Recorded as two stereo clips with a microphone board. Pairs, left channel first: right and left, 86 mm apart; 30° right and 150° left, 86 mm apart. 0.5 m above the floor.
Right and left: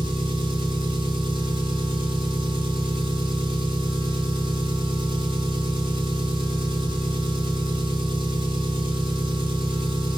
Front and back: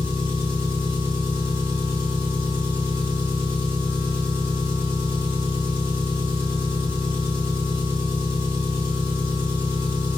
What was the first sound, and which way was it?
An engine running, 90° left.